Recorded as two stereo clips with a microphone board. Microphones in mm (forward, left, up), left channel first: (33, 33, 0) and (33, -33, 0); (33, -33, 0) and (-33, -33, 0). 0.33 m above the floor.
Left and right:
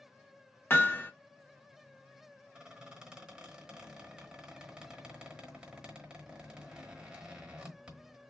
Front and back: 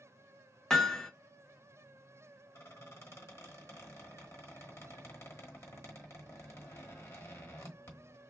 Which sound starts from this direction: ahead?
A squeak, at 2.5 s.